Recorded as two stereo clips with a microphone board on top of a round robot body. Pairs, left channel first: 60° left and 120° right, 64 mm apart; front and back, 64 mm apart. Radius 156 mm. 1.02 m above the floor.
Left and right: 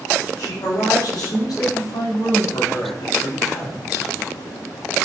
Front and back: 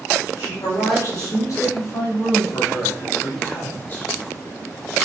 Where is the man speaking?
35° left, 3.5 m; by 4.1 s 65° left, 1.9 m.